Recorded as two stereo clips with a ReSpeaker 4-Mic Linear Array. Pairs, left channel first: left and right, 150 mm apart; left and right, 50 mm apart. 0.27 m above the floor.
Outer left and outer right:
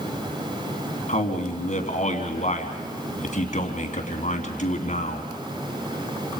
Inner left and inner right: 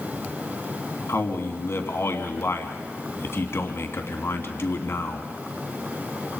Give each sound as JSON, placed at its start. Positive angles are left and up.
{"t": 1.1, "sound": "a man speaking", "side_deg": 55, "distance_m": 3.0}